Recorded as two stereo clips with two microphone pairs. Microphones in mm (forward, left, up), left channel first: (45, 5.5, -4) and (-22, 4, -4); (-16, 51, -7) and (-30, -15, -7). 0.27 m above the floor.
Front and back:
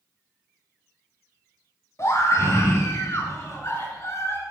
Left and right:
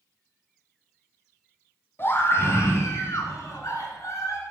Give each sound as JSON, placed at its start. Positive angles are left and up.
{"t": 2.0, "sound": "a scream", "azimuth_deg": 35, "distance_m": 2.0}